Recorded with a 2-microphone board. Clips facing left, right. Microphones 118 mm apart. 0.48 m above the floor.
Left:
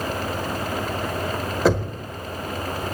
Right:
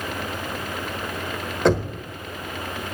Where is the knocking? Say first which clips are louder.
Right 1 dB; 5° left (ahead or behind), 1.2 m.